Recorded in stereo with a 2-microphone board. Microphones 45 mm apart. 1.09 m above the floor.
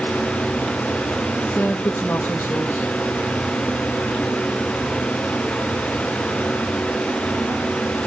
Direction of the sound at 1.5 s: 65° left (ahead or behind).